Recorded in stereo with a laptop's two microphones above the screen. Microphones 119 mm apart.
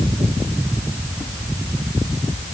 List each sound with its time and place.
Only background noise.